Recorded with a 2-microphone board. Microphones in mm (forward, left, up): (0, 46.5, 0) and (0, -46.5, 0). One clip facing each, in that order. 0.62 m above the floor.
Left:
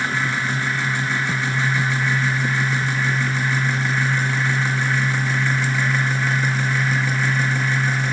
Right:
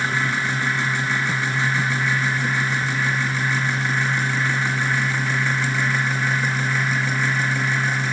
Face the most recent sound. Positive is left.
No sound to turn to.